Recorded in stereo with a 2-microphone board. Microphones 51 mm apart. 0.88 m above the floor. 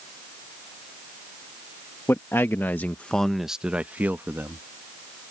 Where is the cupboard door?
I don't hear a cupboard door.